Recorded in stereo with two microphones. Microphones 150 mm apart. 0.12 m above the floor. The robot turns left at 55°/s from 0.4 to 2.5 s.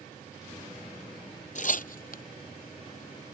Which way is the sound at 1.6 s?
55° left (ahead or behind).